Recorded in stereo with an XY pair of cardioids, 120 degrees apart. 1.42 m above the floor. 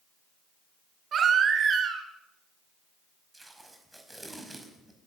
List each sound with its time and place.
1.1 s a baby crying: 45° right, 5 m
3.3 s tape being pulled: 10° right, 5.5 m